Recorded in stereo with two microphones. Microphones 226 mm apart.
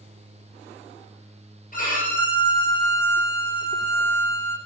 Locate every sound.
1.7 s a violin: 40° left (ahead or behind), 2.5 m